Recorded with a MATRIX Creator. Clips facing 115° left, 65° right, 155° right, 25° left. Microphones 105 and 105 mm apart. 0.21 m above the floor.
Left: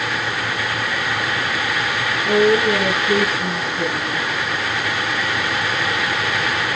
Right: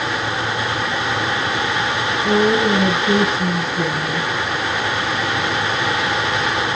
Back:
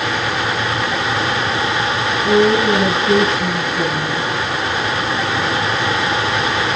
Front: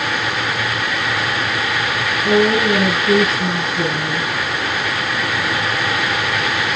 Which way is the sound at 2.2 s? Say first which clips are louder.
Left 1 dB, back 1 dB; 35° right.